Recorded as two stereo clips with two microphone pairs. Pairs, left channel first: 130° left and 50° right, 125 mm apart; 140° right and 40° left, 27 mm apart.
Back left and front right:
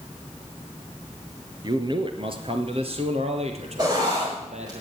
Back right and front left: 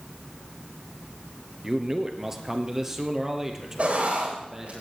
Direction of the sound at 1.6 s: 20° right.